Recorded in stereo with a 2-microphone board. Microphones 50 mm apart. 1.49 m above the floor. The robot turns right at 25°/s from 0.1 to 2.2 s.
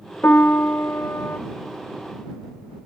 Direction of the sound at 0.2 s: 50° left (ahead or behind).